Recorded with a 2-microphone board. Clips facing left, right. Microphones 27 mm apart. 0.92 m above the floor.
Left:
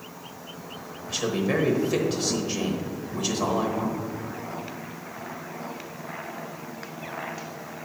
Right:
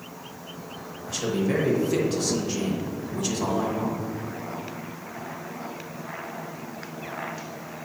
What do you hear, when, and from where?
1.1 s a man speaking: 10° left (ahead or behind), 1.0 m